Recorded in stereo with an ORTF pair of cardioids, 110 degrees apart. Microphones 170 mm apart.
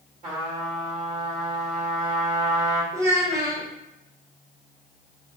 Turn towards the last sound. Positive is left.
turn(degrees=-20)